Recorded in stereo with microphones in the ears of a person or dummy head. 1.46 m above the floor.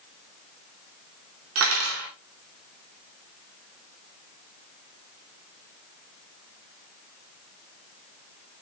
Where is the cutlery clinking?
75° right (ahead or behind), 2.5 m.